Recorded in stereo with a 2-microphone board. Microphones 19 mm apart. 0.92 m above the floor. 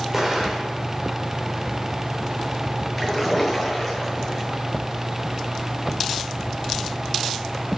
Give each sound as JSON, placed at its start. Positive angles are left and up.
{"t": 0.1, "sound": "an explosion", "side_deg": -20, "distance_m": 4.0}
{"t": 3.0, "sound": "a splash", "side_deg": -5, "distance_m": 9.0}